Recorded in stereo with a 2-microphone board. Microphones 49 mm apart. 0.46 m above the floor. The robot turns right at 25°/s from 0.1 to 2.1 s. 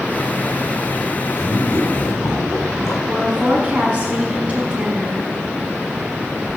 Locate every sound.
1.3 s a man speaking: 75° left (ahead or behind), 4.5 m; by 3.0 s 65° left (ahead or behind), 4.5 m
3.1 s a woman speaking: 25° right (ahead or behind), 5 m